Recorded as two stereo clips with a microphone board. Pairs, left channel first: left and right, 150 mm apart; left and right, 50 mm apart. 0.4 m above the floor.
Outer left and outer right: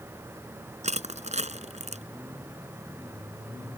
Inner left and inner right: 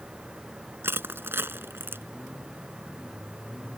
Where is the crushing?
50° right (ahead or behind).